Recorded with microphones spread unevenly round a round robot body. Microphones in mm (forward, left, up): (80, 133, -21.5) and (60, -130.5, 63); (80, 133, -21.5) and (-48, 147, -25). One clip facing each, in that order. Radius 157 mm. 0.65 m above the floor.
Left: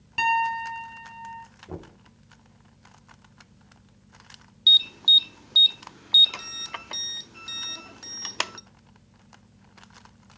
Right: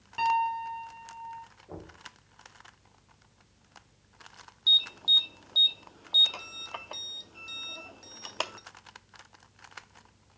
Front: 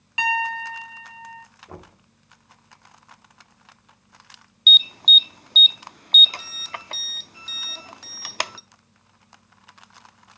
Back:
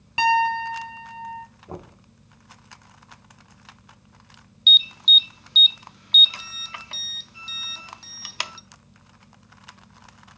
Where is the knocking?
105° left, 0.9 m.